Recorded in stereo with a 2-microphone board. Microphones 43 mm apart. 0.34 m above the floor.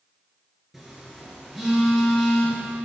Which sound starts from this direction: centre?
A phone buzzing, at 0.7 s.